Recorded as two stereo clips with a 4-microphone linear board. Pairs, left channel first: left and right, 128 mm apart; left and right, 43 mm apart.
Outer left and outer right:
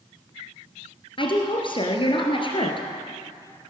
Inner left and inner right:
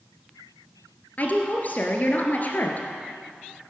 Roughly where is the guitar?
I don't hear a guitar.